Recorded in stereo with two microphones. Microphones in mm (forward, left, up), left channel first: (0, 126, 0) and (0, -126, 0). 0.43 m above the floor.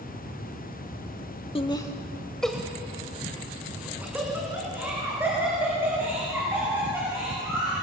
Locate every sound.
1.6 s laughter: 20° left (ahead or behind), 0.9 m; by 7.7 s 10° right (ahead or behind), 9 m